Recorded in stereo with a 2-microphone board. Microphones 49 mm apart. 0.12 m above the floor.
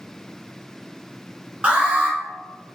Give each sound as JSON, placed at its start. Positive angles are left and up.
{"t": 1.6, "sound": "an alarm", "side_deg": -25, "distance_m": 0.9}